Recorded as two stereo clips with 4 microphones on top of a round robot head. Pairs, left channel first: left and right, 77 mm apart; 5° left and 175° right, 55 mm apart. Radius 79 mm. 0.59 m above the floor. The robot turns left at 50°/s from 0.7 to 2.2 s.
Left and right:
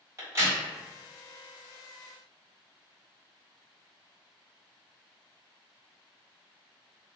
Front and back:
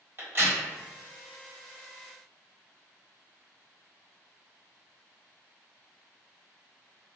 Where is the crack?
135° right, 2.0 m.